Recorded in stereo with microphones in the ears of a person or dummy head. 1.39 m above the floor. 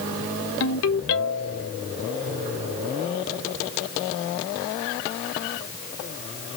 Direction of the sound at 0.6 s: 70° left (ahead or behind).